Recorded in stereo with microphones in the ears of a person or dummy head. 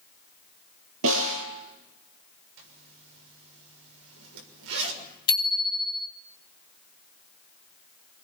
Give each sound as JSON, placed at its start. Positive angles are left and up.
{"t": 1.0, "sound": "a snare drum", "side_deg": -70, "distance_m": 9.5}
{"t": 2.6, "sound": "a zipper", "side_deg": -65, "distance_m": 6.5}
{"t": 5.3, "sound": "a bicycle bell", "side_deg": 25, "distance_m": 2.0}